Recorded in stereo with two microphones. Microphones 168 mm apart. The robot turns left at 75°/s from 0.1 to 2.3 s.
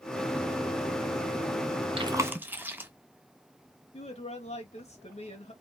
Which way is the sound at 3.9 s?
40° left (ahead or behind).